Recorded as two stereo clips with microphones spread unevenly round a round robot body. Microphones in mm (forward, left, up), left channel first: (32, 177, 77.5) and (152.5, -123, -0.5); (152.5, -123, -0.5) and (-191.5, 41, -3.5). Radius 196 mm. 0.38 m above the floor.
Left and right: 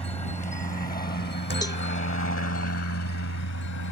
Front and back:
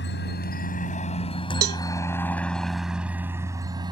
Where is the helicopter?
35° left; by 3.9 s 75° left.